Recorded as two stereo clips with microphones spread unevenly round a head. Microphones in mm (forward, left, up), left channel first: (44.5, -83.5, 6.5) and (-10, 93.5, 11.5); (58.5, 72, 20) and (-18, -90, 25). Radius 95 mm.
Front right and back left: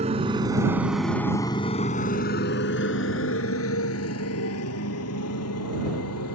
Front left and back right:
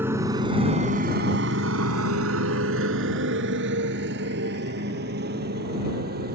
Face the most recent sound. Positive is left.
turn(degrees=-80)